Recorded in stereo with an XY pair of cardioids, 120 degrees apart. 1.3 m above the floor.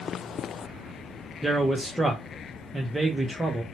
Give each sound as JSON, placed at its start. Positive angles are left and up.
{"t": 1.4, "sound": "a man speaking", "azimuth_deg": -5, "distance_m": 0.6}